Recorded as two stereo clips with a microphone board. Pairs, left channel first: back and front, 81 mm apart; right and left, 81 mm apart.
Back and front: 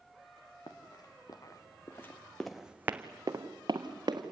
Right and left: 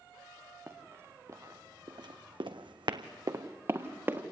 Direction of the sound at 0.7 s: 150° left.